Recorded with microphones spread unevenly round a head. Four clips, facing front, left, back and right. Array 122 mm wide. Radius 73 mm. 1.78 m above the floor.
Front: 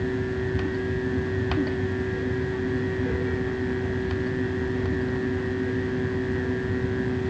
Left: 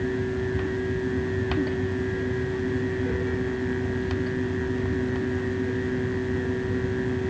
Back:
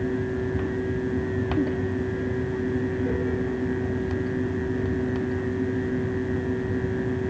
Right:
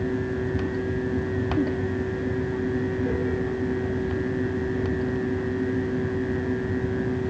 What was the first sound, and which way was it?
Only background noise.